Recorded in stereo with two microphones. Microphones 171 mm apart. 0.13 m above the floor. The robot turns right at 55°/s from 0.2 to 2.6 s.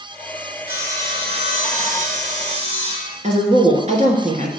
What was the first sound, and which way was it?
Sawing, 165° right.